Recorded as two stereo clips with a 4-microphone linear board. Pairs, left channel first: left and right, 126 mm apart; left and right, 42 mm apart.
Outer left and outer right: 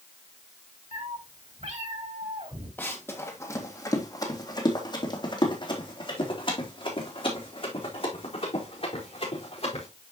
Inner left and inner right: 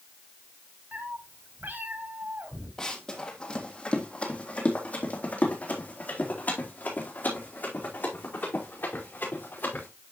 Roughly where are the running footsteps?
Centre.